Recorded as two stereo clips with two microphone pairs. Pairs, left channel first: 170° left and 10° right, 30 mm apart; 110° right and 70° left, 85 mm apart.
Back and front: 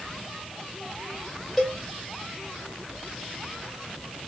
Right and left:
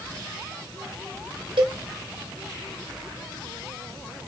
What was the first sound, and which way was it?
A cowbell, 80° left.